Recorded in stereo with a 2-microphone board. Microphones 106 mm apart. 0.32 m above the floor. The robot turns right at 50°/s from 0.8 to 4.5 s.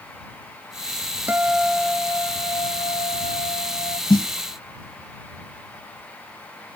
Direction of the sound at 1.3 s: 20° right.